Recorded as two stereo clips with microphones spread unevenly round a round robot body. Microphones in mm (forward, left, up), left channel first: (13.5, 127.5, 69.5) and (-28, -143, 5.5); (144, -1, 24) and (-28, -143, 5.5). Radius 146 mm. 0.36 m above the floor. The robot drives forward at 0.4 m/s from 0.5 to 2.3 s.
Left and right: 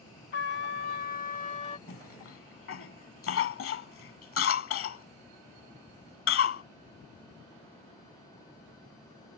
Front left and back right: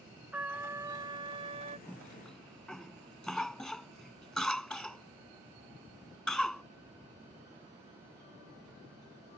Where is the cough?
125° left; by 6.6 s 130° left.